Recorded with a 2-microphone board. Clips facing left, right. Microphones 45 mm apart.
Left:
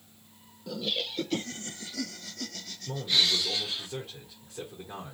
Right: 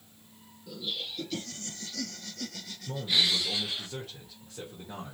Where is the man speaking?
Centre (ahead or behind), 1.6 m.